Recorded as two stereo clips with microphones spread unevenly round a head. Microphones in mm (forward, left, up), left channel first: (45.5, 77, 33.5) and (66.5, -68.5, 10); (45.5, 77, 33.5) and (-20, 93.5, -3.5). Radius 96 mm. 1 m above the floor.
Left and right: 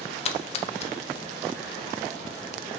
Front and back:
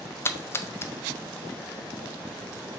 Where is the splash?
50° left, 0.6 m.